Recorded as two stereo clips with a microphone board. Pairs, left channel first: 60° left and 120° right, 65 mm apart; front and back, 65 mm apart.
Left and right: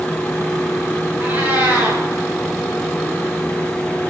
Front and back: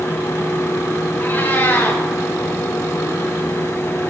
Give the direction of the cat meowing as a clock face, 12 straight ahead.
2 o'clock.